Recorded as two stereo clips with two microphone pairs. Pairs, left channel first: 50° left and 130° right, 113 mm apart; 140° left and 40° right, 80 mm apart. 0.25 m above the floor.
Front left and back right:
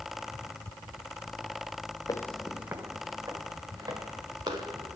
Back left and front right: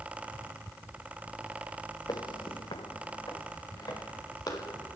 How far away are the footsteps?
About 0.6 m.